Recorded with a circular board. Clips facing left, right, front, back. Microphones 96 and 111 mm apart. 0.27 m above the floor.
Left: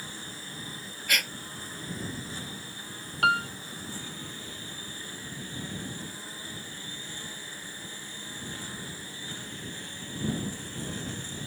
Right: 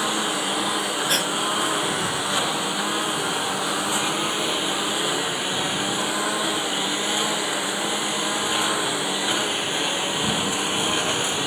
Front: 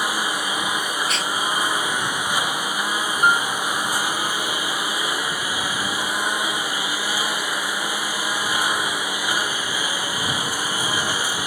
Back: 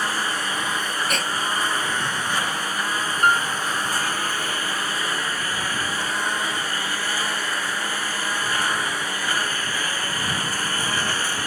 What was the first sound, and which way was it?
A lawn mower, 80° right.